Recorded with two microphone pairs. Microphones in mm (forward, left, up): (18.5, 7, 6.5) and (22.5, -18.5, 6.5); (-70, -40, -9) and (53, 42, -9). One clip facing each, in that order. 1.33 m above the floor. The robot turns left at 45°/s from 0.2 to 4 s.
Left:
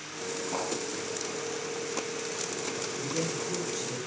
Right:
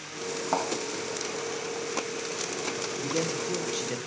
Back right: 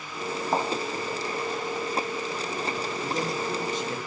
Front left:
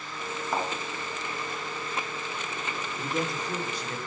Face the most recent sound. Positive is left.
turn(degrees=-90)